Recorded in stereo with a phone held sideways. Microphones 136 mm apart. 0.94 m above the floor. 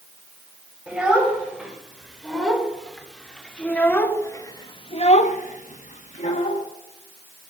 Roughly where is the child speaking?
Centre.